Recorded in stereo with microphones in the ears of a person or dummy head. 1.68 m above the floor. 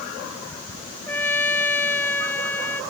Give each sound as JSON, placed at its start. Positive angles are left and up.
{"t": 1.1, "sound": "a trumpet", "side_deg": 10}